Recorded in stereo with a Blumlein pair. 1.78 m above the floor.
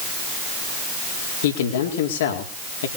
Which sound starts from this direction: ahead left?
A man speaking, at 1.4 s.